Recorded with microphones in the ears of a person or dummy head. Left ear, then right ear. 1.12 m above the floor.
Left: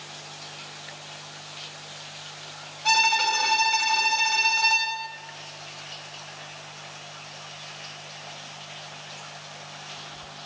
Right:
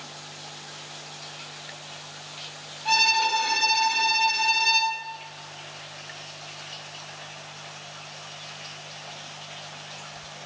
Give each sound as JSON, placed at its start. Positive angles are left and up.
{"t": 2.9, "sound": "a violin", "side_deg": 80, "distance_m": 4.5}